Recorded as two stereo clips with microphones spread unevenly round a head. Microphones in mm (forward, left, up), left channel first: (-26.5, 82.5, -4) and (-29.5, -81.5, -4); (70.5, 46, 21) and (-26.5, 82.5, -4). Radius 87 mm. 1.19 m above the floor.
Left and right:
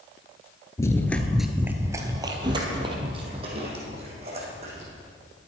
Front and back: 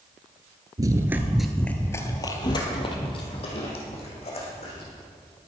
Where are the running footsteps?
130° left, 1.2 m; by 4.9 s 35° right, 4.5 m.